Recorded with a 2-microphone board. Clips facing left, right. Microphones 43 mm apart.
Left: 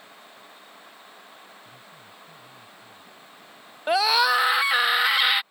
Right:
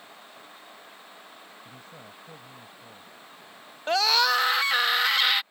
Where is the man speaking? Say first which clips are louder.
Right 1 dB; 65° right (ahead or behind).